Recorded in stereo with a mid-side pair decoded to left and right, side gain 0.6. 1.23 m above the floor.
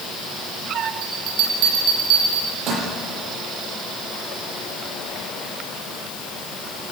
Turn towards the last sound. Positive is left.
turn(degrees=-65)